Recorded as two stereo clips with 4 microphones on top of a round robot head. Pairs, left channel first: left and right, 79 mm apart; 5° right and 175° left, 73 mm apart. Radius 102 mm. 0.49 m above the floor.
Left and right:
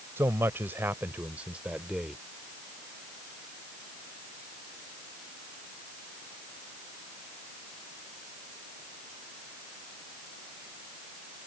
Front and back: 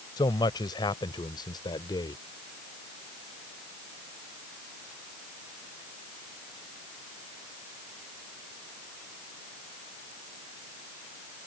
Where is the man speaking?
30° right; by 2.2 s 5° right.